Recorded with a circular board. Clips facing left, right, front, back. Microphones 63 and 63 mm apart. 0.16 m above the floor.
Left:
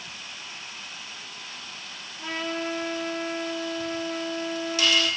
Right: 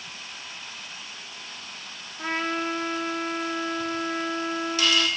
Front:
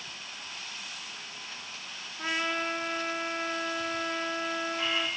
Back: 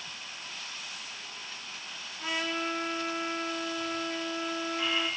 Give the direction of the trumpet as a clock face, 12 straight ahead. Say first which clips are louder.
Right 3 dB, front 2 dB; 2 o'clock.